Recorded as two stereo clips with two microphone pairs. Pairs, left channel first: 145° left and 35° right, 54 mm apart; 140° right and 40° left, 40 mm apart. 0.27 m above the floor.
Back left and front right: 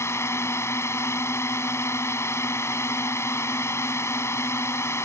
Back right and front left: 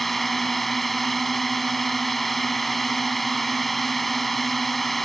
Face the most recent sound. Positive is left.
turn(degrees=135)